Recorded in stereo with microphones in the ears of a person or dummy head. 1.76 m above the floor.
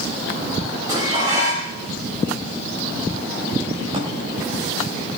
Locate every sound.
0.9 s dishes clattering: 15° right (ahead or behind), 7.5 m
3.9 s a drawer: 35° right (ahead or behind), 4 m